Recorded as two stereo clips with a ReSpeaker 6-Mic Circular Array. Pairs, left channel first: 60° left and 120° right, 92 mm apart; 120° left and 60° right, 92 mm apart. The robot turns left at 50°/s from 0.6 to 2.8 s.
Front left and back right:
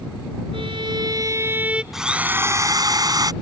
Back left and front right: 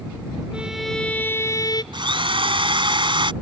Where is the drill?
35° right; by 3.3 s 80° right.